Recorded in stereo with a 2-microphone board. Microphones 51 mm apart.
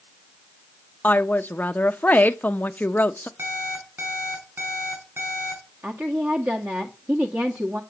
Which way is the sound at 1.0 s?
35° left (ahead or behind).